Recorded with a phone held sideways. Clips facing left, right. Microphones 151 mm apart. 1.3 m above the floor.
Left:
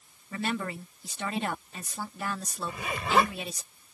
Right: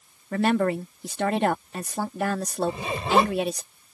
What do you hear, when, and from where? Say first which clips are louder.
0.3 s a woman speaking: right 10 dB; 65° right (ahead or behind)
2.7 s a zipper: right 3 dB; 25° right (ahead or behind)